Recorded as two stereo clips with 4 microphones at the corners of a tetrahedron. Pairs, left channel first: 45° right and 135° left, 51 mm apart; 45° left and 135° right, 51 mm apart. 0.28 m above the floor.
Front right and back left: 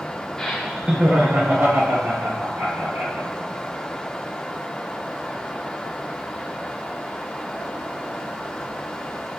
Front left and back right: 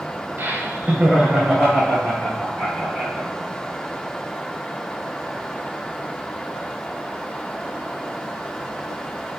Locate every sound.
0.4 s laughter: 120° right, 1.2 m; by 3.3 s 120° left, 3.5 m